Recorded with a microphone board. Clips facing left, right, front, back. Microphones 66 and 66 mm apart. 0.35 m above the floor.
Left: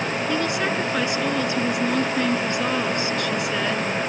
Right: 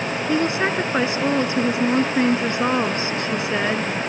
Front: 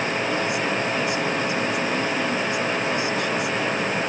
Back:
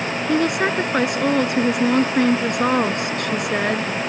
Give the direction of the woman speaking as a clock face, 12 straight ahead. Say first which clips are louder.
Right 5 dB, back 5 dB; 5 o'clock.